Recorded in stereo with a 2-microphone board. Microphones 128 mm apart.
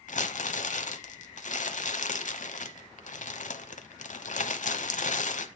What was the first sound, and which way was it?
Crumpling, 75° left (ahead or behind).